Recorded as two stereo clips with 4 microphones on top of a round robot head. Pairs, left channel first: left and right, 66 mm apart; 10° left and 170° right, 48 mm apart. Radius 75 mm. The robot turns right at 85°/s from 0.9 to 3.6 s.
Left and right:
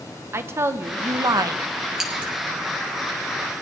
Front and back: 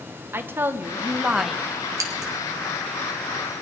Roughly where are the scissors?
Behind.